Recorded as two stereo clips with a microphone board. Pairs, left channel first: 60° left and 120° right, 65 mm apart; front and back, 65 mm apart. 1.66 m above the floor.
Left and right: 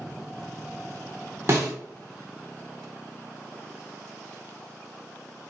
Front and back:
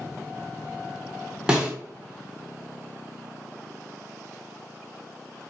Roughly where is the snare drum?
Right.